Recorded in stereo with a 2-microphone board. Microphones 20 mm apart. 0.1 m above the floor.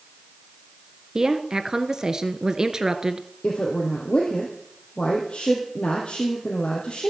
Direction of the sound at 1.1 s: 35° right (ahead or behind).